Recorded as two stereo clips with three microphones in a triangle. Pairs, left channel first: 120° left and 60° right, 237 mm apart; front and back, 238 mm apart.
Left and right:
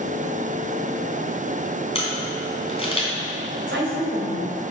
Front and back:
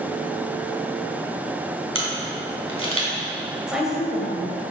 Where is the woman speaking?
90° right, 2.5 m.